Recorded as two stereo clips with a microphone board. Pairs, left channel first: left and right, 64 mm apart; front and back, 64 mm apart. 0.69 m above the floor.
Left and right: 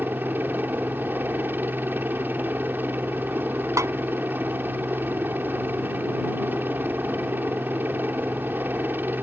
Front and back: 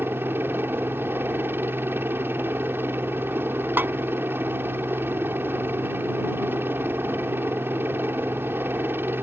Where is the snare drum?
125° right.